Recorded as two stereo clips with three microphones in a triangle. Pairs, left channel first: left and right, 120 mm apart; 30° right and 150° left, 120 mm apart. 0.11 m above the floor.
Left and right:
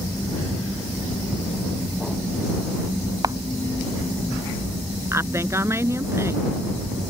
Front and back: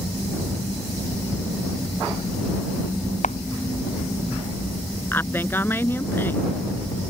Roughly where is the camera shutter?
Ahead right.